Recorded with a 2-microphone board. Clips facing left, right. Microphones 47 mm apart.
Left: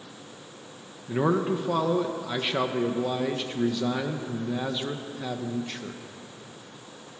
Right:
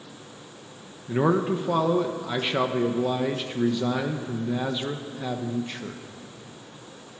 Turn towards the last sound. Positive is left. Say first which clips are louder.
# right 2 dB
turn(degrees=-5)  # may be behind; listen again after turning